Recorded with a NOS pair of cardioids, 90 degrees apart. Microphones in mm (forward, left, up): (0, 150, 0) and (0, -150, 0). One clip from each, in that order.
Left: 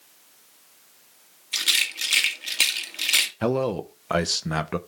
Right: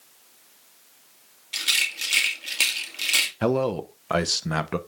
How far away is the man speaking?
About 0.8 m.